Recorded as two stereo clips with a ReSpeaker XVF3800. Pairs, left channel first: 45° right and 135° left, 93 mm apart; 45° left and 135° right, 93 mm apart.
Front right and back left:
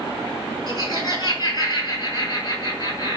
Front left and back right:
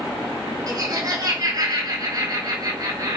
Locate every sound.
0.7 s laughter: 85° right, 3 m